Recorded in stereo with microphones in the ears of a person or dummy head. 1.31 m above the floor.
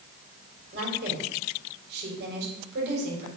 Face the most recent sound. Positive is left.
turn(degrees=-60)  # may be behind; listen again after turning